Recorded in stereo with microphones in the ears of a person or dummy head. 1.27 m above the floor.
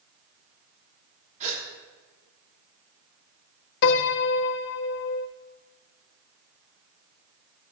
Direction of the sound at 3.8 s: 60° left (ahead or behind).